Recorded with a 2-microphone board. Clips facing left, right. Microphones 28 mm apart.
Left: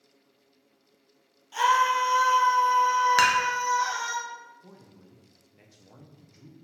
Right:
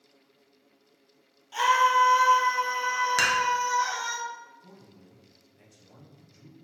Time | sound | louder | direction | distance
1.5 | a scream | right 1 dB | 10° right (ahead or behind) | 1.5 m
3.2 | dishes clattering | left 2 dB | 10° left (ahead or behind) | 0.8 m
4.6 | a man speaking | even | 30° left (ahead or behind) | 0.6 m